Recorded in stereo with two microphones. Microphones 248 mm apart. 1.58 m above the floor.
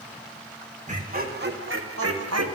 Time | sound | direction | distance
0.9 | laughter | 30° right (ahead or behind) | 2.0 m